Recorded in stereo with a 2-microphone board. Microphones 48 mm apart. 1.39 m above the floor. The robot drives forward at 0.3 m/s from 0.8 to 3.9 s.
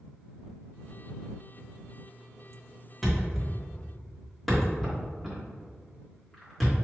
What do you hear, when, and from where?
3.0 s a thud: 5° left (ahead or behind), 1.6 m